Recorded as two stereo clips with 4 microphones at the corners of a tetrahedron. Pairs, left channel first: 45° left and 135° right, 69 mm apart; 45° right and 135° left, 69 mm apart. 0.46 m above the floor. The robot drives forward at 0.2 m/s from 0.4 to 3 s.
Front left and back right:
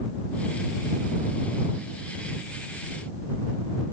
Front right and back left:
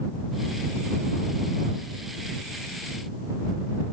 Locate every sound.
Only background noise.